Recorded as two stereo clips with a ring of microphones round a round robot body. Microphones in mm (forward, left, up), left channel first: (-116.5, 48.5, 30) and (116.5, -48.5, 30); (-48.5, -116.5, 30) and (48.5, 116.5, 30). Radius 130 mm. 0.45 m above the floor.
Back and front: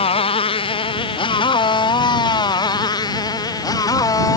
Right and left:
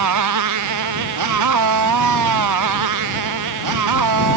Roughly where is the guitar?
No guitar in this recording.